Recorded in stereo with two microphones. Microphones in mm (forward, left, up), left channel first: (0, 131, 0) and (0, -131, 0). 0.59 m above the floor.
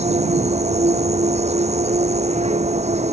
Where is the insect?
25° right (ahead or behind).